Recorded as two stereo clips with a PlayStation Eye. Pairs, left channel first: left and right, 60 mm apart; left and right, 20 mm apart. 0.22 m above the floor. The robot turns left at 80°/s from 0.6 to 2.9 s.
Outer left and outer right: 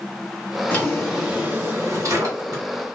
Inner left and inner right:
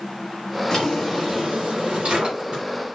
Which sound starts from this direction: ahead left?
A drawer, at 0.7 s.